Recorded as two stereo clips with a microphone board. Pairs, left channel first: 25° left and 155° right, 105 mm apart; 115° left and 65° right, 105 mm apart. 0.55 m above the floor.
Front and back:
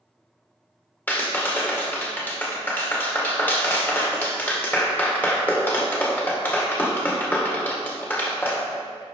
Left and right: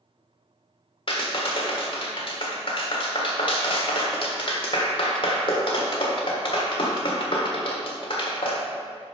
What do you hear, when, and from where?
1.1 s a clap: 90° left, 1.5 m